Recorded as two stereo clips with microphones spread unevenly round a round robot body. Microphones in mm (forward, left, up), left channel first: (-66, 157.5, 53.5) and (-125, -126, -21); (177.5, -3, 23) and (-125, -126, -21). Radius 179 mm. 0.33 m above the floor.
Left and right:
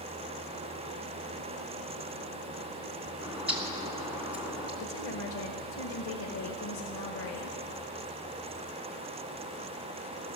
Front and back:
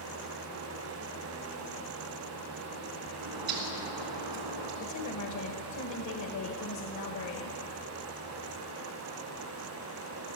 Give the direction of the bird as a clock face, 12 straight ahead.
6 o'clock.